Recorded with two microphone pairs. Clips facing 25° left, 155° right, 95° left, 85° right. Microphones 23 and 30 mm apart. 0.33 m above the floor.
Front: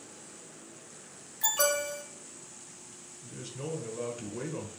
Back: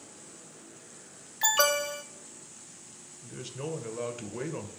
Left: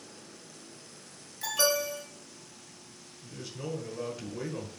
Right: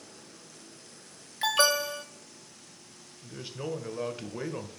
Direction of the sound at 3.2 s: 105° right.